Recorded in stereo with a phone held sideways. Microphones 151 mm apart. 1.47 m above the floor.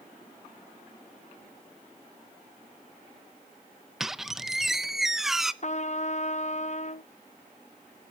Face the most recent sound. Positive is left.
turn(degrees=50)  # may be behind; listen again after turning